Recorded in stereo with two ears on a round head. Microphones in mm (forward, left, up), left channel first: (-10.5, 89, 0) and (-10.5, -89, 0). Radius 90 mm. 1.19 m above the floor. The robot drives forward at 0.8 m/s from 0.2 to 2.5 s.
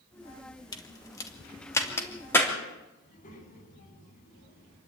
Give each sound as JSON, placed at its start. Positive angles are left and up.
{"t": 0.7, "sound": "a crack", "side_deg": 20, "distance_m": 2.0}
{"t": 3.0, "sound": "a child speaking", "side_deg": 45, "distance_m": 9.0}